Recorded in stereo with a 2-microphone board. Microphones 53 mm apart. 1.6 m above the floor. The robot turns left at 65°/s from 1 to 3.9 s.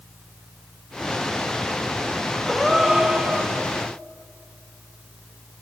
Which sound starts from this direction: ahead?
A gasp, at 2.5 s.